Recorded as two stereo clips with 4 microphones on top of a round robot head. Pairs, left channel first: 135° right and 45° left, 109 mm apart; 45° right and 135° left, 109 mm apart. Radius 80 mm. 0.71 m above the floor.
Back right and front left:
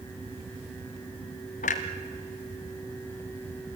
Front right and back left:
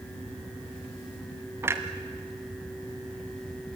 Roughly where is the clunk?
Behind right.